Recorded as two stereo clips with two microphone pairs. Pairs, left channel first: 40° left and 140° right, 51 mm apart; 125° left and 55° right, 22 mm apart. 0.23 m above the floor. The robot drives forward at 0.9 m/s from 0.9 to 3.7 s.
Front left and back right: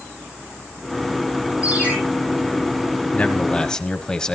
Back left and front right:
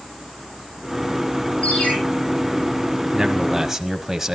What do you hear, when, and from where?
1.6 s a ringtone: 155° left, 7.5 m
3.1 s a man speaking: 5° right, 1.5 m; by 4.3 s 10° right, 1.2 m